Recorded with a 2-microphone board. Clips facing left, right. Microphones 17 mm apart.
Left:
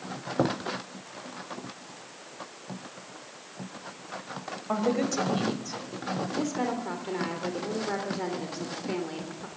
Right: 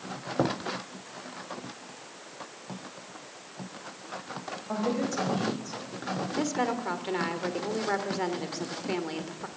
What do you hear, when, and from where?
4.7 s a woman speaking: 35° left (ahead or behind), 4.5 m; by 5.8 s 20° left (ahead or behind), 4 m
6.3 s a woman speaking: 25° right (ahead or behind), 3 m